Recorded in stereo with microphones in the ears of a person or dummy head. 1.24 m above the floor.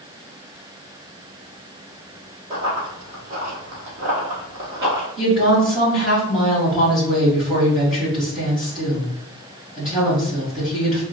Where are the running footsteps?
30° right (ahead or behind), 1.6 m; by 5.1 s 20° right (ahead or behind), 1.4 m.